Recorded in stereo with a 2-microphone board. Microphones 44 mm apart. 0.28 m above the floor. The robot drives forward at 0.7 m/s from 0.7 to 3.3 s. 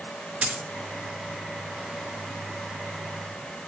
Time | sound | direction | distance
0.4 | a dropped coin | 20° right (ahead or behind) | 1.5 m